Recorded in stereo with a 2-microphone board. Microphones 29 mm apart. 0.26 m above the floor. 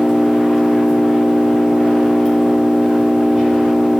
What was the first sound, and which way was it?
An engine running, 10° right (ahead or behind).